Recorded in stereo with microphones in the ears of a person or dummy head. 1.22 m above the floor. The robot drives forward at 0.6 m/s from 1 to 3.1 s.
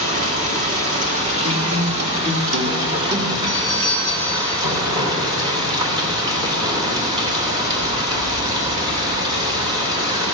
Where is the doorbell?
75° right (ahead or behind), 3 m.